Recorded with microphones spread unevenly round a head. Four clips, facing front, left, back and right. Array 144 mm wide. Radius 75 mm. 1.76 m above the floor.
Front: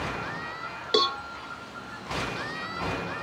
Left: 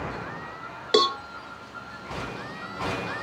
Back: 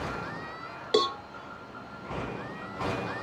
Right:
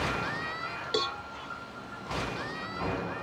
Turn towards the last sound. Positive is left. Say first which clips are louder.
# left 11 dB, even
turn(degrees=105)